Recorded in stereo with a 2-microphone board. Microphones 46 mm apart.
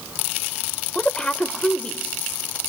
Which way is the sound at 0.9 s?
20° left (ahead or behind).